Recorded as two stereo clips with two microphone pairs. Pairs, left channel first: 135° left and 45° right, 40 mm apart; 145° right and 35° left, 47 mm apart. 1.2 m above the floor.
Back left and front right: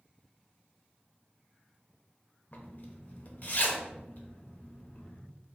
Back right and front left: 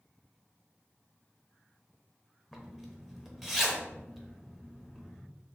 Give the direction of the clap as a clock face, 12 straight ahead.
I don't hear a clap.